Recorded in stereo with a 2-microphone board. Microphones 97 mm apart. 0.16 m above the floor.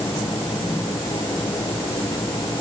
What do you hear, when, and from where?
Only background noise.